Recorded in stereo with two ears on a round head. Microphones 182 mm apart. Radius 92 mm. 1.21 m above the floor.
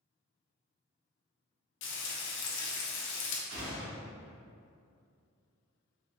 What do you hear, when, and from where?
1.8 s frying: 60° left (ahead or behind), 0.5 m
3.5 s a gunshot: 65° right (ahead or behind), 1.0 m